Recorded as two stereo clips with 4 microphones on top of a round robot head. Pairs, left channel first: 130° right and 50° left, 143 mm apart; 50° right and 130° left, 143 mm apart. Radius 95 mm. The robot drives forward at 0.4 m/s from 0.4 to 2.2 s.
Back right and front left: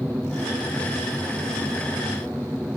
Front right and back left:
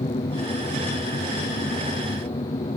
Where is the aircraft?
30° right.